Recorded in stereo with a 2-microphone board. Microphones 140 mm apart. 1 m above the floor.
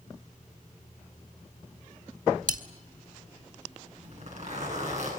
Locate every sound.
2.5 s cutlery clinking: 70° right (ahead or behind), 2.0 m
4.0 s a zipper: 55° right (ahead or behind), 9.5 m